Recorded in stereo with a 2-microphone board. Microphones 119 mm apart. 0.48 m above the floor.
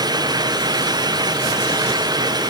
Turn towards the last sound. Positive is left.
No sound to turn to.